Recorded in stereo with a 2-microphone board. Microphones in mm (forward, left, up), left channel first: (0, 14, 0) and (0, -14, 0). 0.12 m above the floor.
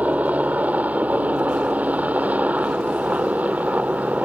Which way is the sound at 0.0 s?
60° right (ahead or behind).